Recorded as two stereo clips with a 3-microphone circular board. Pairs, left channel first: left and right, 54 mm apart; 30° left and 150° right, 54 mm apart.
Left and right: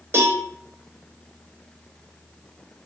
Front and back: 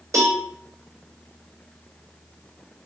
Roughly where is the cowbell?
Behind right.